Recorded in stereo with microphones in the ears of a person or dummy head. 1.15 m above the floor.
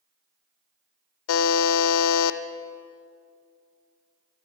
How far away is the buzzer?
About 0.6 m.